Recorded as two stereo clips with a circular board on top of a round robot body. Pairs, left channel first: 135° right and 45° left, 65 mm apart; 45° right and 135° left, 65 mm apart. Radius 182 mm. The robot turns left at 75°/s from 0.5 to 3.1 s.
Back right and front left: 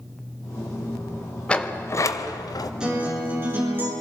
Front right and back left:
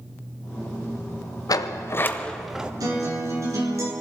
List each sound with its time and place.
1.5 s a sliding door: 60° right, 0.6 m; by 2.7 s 150° right, 0.6 m
2.8 s a guitar: 125° left, 4 m; by 3.9 s 100° left, 4 m